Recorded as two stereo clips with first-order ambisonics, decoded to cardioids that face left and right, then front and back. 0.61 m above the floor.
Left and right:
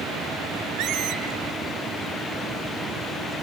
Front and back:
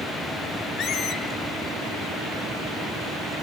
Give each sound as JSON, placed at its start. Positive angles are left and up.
{"t": 0.8, "sound": "a squeak", "azimuth_deg": -50, "distance_m": 1.2}